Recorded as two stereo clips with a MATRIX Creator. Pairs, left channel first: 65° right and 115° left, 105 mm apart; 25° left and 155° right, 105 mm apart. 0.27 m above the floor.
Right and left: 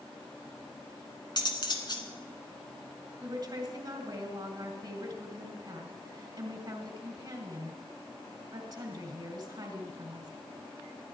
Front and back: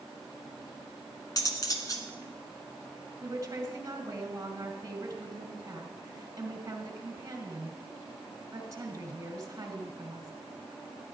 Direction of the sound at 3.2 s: 150° left.